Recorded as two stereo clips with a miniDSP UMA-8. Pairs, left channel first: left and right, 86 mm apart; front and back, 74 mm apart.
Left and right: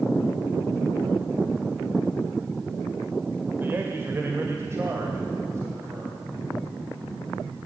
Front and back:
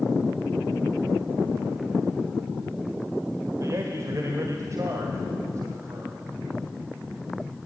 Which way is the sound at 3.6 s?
150° right.